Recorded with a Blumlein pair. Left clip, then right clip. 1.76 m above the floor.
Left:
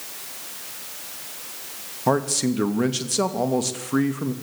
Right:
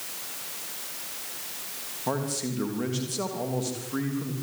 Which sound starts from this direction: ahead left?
A man speaking, at 2.1 s.